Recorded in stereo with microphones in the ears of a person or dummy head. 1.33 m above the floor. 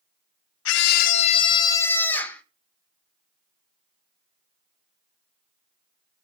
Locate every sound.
0.7 s a scream: 65° left (ahead or behind), 0.9 m; by 2.4 s 10° left (ahead or behind), 2.0 m